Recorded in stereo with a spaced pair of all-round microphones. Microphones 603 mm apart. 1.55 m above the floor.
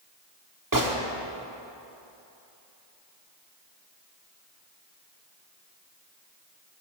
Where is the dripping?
I don't hear dripping.